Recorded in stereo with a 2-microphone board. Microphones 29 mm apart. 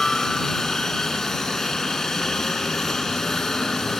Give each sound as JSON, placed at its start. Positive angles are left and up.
{"t": 0.0, "sound": "a helicopter", "side_deg": 15}